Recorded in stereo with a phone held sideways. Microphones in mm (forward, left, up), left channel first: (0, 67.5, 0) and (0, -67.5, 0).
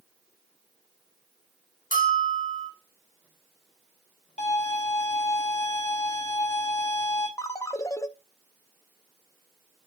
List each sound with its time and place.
1.9 s a bell: 75° left (ahead or behind), 1.8 m
4.4 s a violin: 70° left (ahead or behind), 3 m
7.4 s a ringtone: 25° left (ahead or behind), 0.7 m